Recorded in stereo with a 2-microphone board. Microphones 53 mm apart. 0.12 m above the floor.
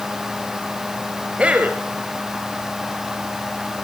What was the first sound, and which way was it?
A man speaking, 25° right (ahead or behind).